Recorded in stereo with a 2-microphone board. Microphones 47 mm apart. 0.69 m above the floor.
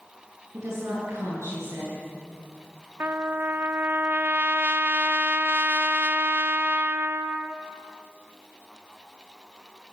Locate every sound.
0.5 s a woman speaking: 85° right, 10 m
3.0 s a trumpet: 50° right (ahead or behind), 1.3 m